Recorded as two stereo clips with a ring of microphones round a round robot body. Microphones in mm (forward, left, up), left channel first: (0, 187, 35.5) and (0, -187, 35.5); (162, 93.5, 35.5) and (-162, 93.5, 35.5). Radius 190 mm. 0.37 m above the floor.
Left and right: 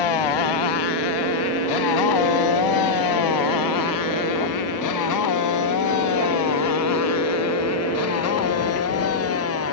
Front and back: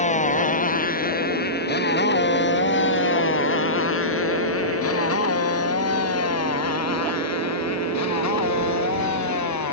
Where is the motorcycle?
70° left; by 9.7 s 35° left.